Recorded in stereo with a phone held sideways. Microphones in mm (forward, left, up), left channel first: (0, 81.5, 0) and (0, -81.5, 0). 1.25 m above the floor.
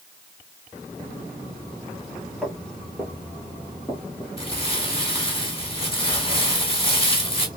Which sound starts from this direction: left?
Crumpling, at 4.4 s.